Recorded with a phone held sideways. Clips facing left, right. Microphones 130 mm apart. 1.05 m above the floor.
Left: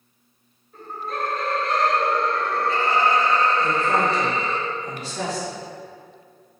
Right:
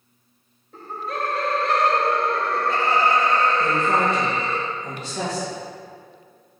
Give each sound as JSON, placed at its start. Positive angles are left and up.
{"t": 0.7, "sound": "laughter", "side_deg": -80, "distance_m": 1.4}
{"t": 3.6, "sound": "a woman speaking", "side_deg": -25, "distance_m": 1.8}